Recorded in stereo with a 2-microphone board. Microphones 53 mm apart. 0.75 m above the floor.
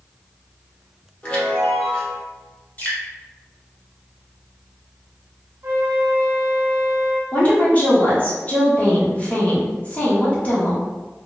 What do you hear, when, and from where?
1.2 s a chime: 20° left (ahead or behind), 1.3 m
2.8 s dripping: 30° left (ahead or behind), 1.6 m
5.6 s a flute: 45° right (ahead or behind), 0.7 m
7.3 s a woman speaking: 25° left (ahead or behind), 1.1 m